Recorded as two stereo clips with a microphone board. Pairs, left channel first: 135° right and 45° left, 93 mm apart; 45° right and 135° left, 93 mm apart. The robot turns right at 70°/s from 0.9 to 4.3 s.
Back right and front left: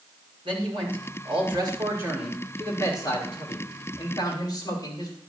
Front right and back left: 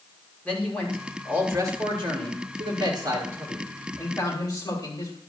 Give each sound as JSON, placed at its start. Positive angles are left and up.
{"t": 0.5, "sound": "a man speaking", "azimuth_deg": 30, "distance_m": 6.0}